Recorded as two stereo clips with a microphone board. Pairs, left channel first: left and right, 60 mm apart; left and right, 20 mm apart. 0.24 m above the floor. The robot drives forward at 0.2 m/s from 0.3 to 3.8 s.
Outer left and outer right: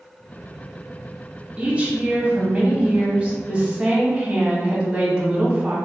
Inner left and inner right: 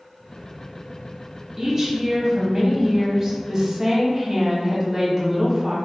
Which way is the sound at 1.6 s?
25° right (ahead or behind).